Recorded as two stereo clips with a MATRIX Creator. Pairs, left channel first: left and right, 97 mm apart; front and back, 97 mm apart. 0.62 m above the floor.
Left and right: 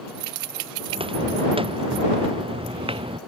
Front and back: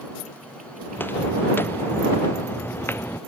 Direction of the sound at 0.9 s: 70° right.